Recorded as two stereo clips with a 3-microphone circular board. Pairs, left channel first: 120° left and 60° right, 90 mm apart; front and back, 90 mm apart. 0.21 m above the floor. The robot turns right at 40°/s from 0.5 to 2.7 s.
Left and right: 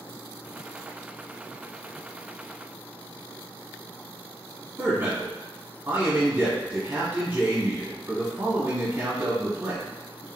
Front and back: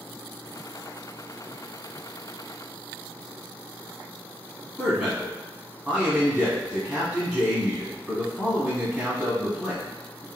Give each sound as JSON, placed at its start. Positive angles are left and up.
{"t": 4.8, "sound": "a man speaking", "azimuth_deg": -110, "distance_m": 1.3}